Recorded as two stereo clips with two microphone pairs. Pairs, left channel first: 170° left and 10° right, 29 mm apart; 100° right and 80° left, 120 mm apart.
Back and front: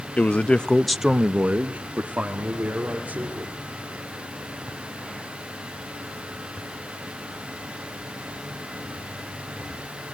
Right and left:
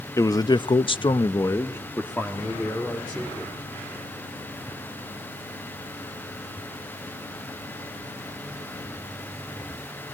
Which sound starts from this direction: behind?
A man speaking, at 0.2 s.